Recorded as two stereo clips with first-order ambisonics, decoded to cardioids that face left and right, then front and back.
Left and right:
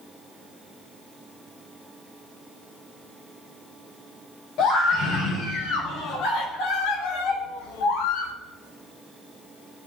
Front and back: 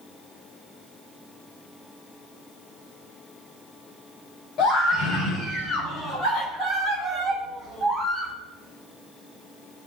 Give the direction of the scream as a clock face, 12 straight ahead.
10 o'clock.